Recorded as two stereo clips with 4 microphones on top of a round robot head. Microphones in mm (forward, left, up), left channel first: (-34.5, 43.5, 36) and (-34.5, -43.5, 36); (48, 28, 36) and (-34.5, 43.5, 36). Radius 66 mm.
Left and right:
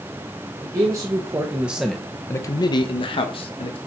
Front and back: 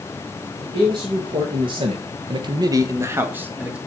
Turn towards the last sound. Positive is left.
turn(degrees=95)